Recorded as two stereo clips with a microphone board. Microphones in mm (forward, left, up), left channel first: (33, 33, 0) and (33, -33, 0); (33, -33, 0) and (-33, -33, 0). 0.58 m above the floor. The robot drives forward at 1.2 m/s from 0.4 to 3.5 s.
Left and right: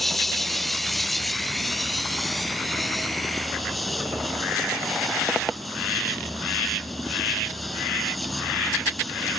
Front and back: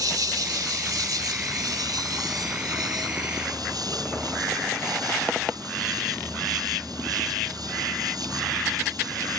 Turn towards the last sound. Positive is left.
turn(degrees=180)